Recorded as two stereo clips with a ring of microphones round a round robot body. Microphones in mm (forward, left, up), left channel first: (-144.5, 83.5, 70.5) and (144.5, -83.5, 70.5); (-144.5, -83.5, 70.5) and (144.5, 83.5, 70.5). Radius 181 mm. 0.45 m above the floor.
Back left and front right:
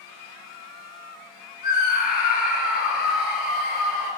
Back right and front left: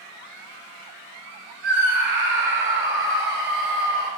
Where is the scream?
85° left, 7 m; by 4.1 s 90° left, 9 m.